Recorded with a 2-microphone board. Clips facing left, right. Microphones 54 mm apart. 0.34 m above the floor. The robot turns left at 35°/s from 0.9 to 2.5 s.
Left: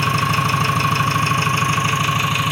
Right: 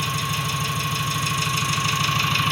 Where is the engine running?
65° left, 0.9 m; by 2.5 s 10° left, 0.9 m.